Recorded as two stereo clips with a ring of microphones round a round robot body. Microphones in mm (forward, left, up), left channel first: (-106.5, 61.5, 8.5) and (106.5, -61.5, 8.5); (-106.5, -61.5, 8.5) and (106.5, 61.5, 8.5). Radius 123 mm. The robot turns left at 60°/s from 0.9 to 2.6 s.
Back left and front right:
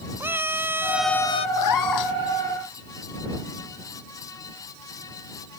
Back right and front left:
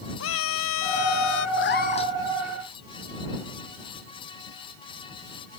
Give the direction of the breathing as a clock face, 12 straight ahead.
I don't hear breathing.